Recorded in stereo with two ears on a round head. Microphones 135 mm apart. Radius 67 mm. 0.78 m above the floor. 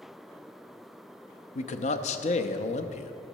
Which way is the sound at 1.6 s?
45° left (ahead or behind).